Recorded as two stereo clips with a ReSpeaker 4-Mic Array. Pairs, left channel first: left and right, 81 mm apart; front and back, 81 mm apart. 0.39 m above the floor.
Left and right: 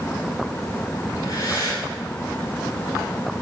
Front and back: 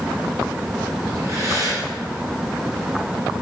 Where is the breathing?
135° left, 7 m.